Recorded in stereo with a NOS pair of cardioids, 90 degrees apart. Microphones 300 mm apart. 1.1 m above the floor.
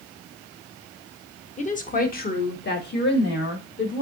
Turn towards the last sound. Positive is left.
turn(degrees=40)